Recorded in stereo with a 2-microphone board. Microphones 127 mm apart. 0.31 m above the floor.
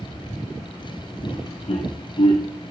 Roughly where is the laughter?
Left.